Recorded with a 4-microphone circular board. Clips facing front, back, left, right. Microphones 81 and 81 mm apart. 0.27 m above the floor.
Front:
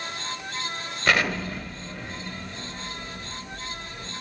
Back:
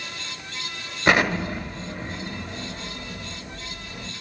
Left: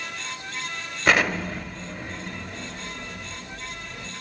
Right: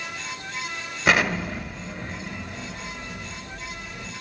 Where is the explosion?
165° right, 1.5 m.